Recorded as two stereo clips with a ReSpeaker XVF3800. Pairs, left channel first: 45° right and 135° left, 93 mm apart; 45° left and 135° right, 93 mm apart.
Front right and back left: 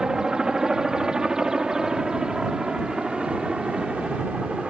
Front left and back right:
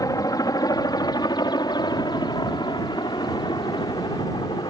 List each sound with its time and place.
0.0 s a helicopter: 55° left; by 4.7 s 50° left